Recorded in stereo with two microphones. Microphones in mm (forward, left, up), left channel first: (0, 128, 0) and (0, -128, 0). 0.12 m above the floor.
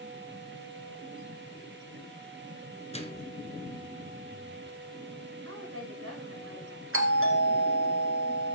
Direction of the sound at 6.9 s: 55° right (ahead or behind).